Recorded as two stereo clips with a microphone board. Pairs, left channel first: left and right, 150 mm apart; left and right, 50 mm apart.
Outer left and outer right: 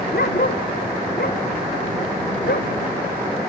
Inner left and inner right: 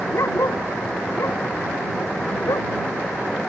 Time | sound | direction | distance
0.1 | a dog barking | 75° left (ahead or behind) | ?